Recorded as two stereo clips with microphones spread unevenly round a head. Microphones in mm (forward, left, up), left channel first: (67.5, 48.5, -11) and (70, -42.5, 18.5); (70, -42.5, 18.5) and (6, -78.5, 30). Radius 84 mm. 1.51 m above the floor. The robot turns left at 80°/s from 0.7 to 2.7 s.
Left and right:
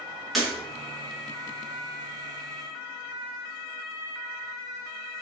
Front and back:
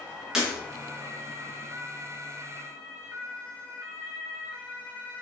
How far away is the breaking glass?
About 0.7 m.